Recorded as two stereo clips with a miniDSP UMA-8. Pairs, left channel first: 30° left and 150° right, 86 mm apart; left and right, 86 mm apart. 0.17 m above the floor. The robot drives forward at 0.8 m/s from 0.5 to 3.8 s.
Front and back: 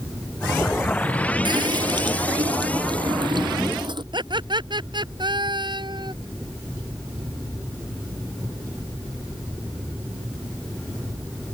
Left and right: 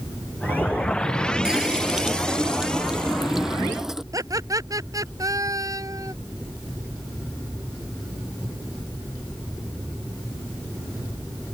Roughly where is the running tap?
Behind.